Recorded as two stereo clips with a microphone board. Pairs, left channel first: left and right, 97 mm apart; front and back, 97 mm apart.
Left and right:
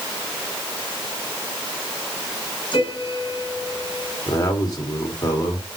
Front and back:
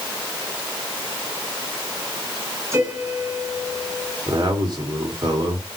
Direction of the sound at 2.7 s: 120° left.